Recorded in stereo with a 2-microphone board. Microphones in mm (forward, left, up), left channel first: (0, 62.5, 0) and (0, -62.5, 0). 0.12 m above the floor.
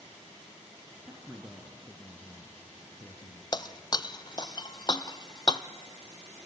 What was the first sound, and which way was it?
A man speaking, 15° right (ahead or behind).